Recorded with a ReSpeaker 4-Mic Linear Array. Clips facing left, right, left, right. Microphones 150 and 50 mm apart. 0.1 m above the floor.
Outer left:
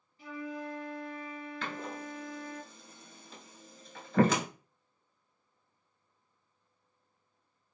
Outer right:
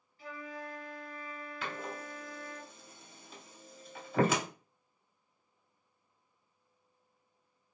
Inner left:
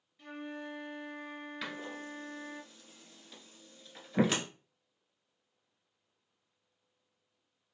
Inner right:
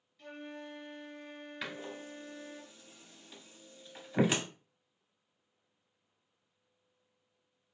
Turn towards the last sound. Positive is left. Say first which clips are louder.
# even, inner right 1 dB
turn(degrees=-5)  # may be behind; listen again after turning